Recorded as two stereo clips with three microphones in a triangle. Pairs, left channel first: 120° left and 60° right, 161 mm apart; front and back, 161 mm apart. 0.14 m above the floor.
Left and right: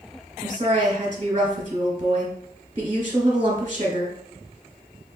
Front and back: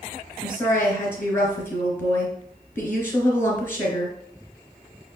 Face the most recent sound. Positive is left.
turn(degrees=-65)